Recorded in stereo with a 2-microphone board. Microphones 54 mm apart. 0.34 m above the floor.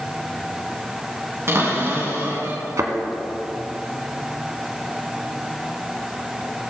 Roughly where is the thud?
Right.